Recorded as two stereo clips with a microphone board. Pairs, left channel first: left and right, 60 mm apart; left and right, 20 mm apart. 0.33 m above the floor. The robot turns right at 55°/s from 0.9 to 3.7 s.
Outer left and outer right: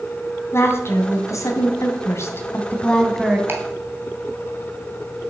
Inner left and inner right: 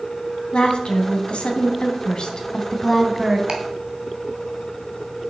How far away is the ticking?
About 3 m.